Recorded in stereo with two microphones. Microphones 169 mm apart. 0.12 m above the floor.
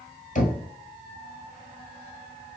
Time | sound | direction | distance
0.3 | knocking | 45° left (ahead or behind) | 1.5 m